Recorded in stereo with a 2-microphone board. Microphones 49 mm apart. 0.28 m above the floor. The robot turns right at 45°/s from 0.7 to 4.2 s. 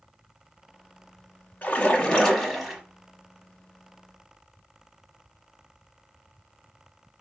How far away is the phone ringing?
No phone ringing in this recording.